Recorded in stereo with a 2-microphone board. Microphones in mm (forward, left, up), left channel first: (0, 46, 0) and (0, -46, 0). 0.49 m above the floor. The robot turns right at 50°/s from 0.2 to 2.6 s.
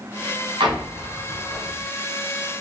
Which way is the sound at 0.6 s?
65° right (ahead or behind).